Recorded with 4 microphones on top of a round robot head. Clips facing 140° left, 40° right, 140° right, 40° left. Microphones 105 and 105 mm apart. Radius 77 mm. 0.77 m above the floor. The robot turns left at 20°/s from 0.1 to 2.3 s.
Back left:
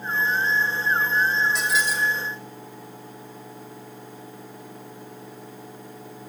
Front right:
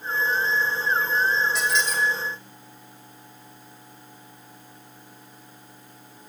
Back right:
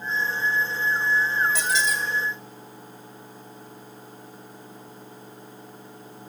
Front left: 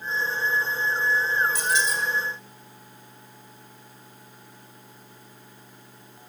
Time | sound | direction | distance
1.6 | a squeak | 125° right | 2.5 m